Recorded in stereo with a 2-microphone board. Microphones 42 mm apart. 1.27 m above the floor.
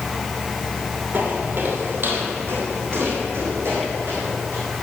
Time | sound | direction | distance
1.1 | footsteps | 45° right (ahead or behind) | 1.7 m